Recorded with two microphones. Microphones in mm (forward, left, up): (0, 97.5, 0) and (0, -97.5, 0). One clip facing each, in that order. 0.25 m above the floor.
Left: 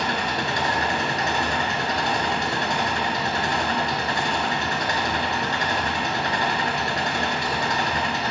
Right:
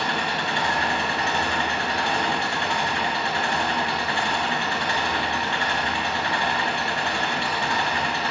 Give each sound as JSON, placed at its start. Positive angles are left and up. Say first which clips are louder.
{"t": 0.0, "sound": "an engine running", "louder": "left 1 dB", "side_deg": 40, "distance_m": 3.5}